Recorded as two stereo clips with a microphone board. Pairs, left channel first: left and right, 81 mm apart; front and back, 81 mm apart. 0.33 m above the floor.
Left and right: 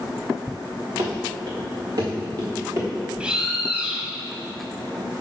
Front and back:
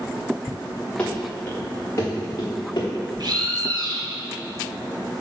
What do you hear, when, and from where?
1.0 s running footsteps: 75° right, 2 m; by 2.9 s 40° right, 2 m
3.2 s a bird: 170° right, 0.9 m